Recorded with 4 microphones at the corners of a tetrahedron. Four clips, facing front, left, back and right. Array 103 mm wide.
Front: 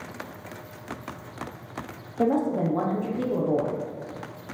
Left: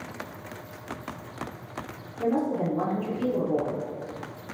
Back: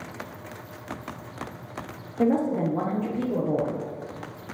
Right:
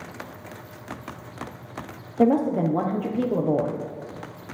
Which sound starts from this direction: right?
A woman speaking, at 2.2 s.